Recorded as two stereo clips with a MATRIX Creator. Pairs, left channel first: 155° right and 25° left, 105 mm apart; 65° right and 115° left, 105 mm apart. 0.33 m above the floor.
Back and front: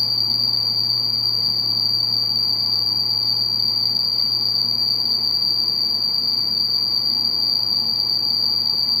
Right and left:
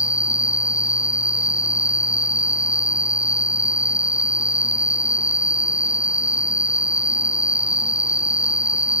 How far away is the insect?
About 0.9 m.